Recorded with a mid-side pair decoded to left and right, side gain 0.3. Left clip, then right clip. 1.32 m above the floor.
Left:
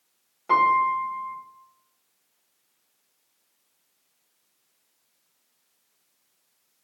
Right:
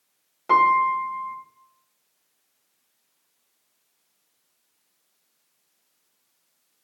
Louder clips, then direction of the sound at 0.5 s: Right 2 dB; 45° right.